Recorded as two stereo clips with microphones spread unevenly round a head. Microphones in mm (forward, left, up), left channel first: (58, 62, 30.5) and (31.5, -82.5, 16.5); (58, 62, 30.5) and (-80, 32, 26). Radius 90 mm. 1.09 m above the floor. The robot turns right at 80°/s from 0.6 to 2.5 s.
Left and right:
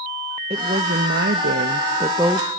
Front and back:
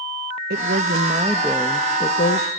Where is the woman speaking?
160° right, 0.9 m; by 2.5 s 10° right, 0.9 m.